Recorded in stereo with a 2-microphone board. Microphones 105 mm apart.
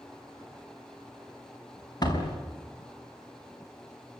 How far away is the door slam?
About 4 m.